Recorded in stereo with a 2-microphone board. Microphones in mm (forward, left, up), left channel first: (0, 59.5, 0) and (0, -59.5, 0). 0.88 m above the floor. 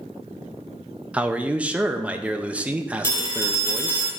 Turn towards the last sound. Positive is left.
turn(degrees=25)  # may be behind; listen again after turning